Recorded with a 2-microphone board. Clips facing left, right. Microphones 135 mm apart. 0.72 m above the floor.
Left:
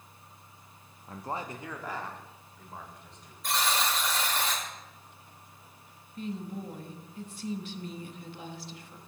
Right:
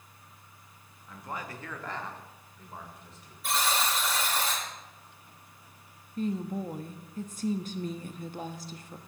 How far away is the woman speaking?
About 0.7 m.